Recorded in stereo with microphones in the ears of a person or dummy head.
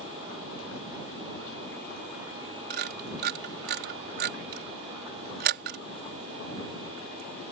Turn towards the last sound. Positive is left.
turn(degrees=-50)  # may be behind; listen again after turning